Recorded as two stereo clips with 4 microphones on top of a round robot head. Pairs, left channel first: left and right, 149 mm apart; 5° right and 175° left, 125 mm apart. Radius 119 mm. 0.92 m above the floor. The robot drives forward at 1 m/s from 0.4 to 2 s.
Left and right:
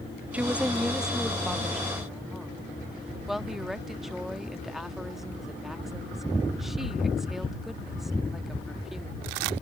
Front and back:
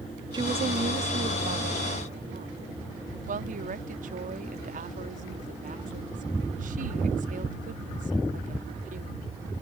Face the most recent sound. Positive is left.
turn(degrees=180)